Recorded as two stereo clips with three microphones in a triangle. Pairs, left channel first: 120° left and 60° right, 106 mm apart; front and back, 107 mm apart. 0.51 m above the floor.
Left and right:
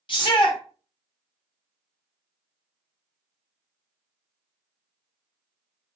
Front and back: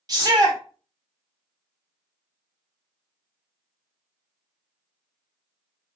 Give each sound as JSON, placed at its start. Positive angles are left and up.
{"t": 0.1, "sound": "a shout", "azimuth_deg": 140, "distance_m": 1.5}